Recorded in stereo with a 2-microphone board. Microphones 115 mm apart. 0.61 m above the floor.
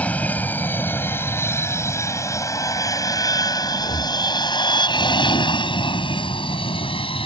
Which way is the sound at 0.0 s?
15° left (ahead or behind).